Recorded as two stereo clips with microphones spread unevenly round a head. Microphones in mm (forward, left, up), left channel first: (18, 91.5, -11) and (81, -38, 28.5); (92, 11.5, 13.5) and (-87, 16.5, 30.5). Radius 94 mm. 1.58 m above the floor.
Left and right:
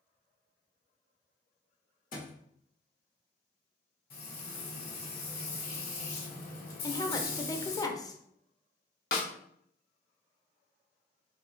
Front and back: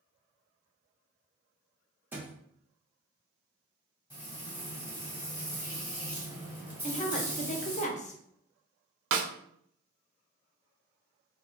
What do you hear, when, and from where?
2.1 s a thud: 110° left, 1.2 m
4.1 s frying: 105° left, 2.0 m
6.8 s a woman speaking: 45° left, 0.6 m
9.1 s a snare drum: 160° left, 0.6 m